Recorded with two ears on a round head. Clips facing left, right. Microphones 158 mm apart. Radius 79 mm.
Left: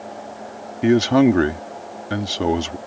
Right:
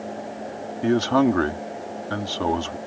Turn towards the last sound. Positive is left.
turn(degrees=20)  # may be behind; listen again after turning